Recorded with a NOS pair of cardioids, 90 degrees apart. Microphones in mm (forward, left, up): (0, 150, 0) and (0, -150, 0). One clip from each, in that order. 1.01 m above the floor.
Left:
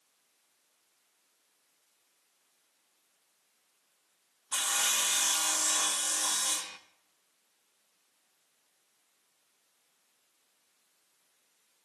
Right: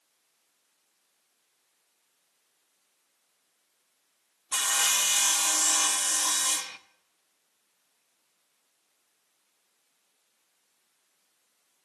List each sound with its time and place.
4.5 s sawing: 20° right, 0.8 m